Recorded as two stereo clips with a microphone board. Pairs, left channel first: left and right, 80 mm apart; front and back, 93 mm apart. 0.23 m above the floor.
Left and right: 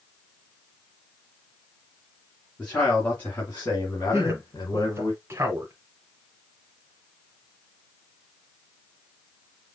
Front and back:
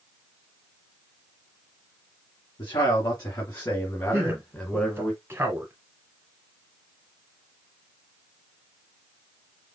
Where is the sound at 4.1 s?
125° right, 1.3 m.